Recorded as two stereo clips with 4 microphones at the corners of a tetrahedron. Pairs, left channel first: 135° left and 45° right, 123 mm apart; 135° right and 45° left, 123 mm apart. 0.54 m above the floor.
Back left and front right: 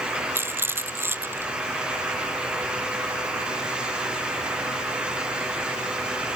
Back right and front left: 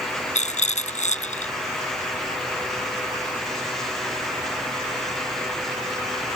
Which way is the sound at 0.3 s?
115° right.